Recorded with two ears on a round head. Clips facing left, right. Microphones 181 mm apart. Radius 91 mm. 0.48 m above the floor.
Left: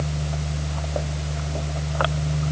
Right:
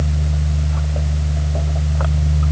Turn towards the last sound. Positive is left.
No sound to turn to.